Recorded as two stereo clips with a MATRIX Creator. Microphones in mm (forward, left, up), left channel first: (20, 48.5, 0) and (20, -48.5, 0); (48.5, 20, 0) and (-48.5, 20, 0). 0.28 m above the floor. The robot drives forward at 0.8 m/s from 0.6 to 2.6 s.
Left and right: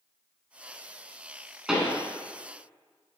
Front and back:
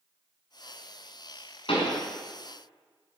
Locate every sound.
1.7 s a pop: 5° right, 1.4 m; by 2.0 s 10° right, 1.2 m